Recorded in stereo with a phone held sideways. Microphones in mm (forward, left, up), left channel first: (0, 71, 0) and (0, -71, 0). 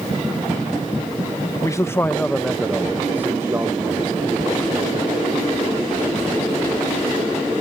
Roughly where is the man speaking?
Left.